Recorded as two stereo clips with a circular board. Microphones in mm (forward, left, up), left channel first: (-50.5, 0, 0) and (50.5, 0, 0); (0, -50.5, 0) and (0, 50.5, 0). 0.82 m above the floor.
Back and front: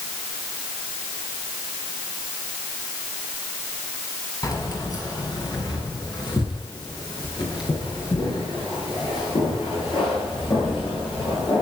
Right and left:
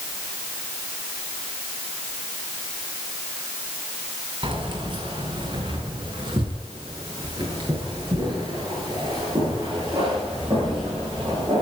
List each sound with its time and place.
4.4 s keys jangling: 125° left, 4.5 m; by 11.6 s 140° left, 14 m